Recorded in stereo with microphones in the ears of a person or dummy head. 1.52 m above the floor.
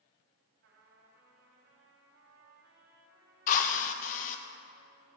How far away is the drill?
About 1.2 m.